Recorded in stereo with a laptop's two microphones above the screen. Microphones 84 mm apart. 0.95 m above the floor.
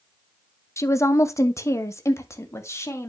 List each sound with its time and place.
0.8 s a woman speaking: 35° left (ahead or behind), 0.8 m